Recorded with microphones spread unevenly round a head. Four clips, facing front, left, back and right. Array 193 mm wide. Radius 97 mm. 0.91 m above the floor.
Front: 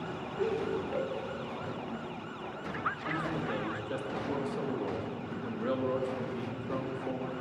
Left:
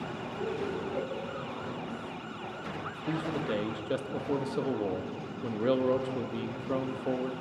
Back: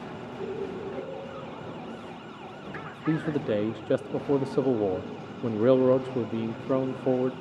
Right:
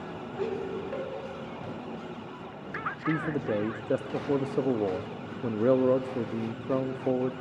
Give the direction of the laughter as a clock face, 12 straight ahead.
3 o'clock.